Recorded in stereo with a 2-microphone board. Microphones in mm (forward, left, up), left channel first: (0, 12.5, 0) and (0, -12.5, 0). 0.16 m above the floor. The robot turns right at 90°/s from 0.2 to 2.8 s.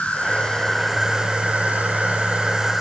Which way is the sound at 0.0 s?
120° left.